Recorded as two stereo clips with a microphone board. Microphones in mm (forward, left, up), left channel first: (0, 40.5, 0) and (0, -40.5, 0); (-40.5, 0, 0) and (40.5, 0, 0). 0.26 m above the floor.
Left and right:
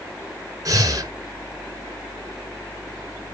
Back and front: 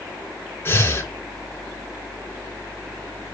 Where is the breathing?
125° right, 1.9 m.